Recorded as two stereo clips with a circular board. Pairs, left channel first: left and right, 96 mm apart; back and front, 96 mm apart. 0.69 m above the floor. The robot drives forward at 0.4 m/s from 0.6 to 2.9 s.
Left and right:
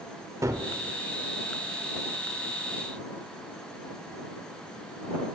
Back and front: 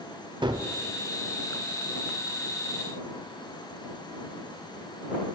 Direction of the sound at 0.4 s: 35° right.